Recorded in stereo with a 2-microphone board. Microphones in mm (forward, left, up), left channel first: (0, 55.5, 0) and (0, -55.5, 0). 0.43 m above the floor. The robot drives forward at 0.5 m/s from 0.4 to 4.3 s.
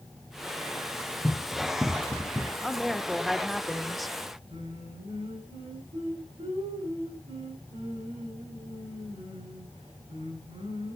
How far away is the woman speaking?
About 0.9 m.